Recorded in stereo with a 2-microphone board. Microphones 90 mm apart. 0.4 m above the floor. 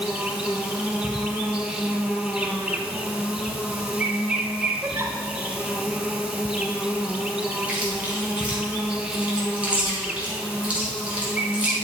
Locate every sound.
0.0 s an insect: 15° right (ahead or behind), 1.3 m
4.8 s a giggle: 35° right (ahead or behind), 1.1 m
7.7 s chewing: 15° right (ahead or behind), 3 m